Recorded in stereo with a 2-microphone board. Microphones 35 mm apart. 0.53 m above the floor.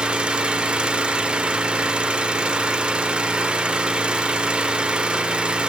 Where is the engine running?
30° right (ahead or behind), 0.9 m.